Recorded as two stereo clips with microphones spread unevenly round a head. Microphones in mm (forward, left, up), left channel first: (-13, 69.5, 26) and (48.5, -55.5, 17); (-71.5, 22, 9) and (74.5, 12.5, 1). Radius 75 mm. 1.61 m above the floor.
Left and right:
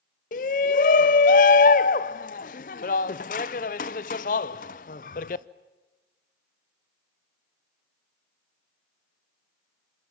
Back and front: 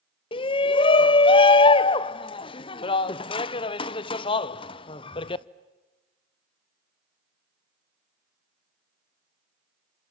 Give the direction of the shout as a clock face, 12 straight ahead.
8 o'clock.